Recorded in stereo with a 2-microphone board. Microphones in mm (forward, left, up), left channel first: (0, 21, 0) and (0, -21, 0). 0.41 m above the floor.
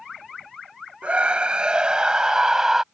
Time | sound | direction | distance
1.0 | a scream | 30° right (ahead or behind) | ?